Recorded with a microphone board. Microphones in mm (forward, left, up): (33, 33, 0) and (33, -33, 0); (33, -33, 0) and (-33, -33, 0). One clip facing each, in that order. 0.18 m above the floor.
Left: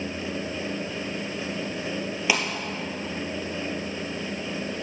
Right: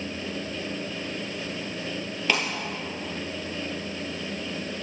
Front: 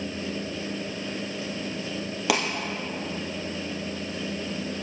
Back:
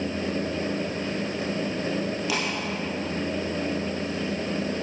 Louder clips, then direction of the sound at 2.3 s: Even, front 7 dB; 10° left.